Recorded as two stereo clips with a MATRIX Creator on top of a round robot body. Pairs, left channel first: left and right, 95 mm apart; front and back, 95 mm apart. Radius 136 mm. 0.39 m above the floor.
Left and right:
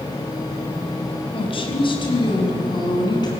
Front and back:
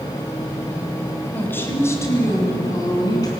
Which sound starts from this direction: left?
A woman speaking, at 1.3 s.